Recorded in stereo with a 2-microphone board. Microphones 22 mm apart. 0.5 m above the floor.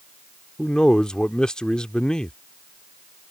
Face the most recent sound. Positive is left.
turn(degrees=40)  # may be behind; listen again after turning